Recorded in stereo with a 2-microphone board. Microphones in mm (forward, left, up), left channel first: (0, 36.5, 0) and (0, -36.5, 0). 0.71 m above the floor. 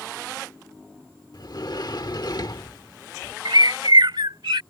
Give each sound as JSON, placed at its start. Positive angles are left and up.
{"t": 1.3, "sound": "a sliding door", "side_deg": 65}
{"t": 3.5, "sound": "a bird", "side_deg": -80}